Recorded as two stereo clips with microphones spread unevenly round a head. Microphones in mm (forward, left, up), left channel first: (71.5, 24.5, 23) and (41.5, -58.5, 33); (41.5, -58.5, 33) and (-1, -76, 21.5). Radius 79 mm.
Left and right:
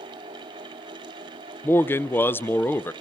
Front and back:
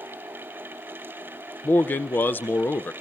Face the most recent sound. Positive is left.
turn(degrees=55)